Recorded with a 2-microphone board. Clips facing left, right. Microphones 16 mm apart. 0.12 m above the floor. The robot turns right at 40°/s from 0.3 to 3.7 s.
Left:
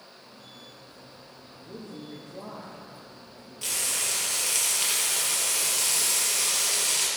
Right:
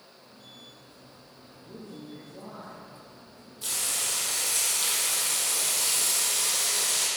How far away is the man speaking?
About 2.5 m.